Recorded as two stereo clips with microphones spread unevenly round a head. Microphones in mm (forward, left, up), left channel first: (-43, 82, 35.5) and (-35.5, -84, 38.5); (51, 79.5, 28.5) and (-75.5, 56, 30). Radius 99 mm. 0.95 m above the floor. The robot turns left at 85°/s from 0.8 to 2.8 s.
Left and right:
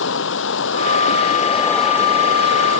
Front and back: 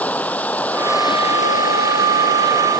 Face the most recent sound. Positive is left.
turn(degrees=-80)